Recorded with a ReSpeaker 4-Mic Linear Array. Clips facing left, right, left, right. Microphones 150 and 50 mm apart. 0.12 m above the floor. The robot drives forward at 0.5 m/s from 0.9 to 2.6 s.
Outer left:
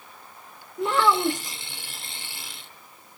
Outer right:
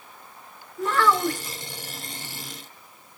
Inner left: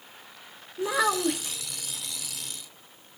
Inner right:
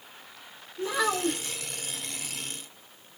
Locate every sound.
0.8 s a child speaking: 20° left (ahead or behind), 0.7 m